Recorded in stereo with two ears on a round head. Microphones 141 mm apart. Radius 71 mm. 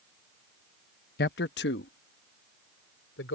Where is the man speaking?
65° left (ahead or behind); by 3.4 s 85° left.